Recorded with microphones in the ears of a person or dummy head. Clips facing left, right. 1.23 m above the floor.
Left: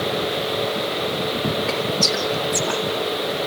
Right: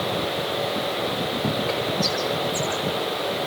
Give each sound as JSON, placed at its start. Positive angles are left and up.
{"t": 1.7, "sound": "whispering", "side_deg": 80, "distance_m": 2.5}